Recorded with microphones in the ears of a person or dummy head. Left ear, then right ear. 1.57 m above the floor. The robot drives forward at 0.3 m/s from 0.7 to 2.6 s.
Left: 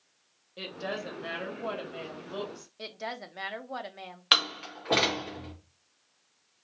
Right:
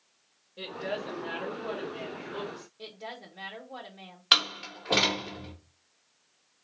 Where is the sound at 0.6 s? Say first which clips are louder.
Right 1 dB; 70° left (ahead or behind), 2 m; by 2.7 s 60° left (ahead or behind), 2.5 m.